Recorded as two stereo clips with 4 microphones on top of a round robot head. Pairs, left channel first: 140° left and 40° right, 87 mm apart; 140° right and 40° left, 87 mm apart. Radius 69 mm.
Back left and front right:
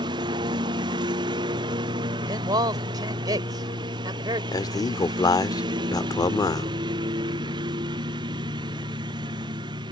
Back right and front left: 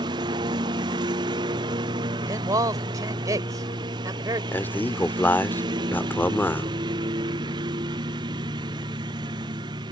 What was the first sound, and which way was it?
A lawn mower, straight ahead.